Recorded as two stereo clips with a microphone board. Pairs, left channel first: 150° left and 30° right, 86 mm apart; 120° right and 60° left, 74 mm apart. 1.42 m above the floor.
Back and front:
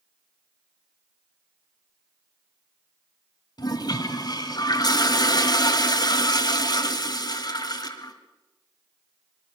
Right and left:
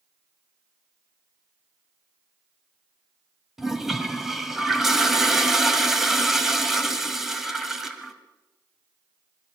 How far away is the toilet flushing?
About 1.8 m.